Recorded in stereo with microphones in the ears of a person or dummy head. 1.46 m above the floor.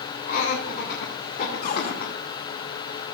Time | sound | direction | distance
0.3 | laughter | 45° left (ahead or behind) | 3 m
1.6 | a cupboard door | 45° left (ahead or behind) | 1.1 m